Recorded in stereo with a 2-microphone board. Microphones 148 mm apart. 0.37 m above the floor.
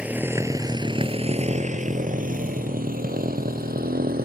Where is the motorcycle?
10° right (ahead or behind); by 4.3 s 90° right.